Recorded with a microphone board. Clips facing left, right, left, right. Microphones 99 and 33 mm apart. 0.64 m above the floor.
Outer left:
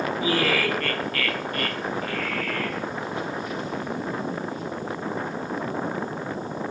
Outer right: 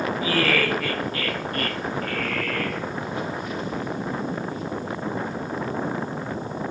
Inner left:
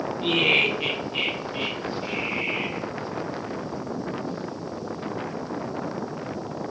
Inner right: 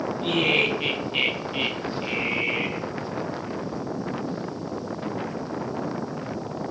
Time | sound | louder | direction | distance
0.2 | laughter | outer right 1 dB, inner left 2 dB | 25° left (ahead or behind) | 0.6 m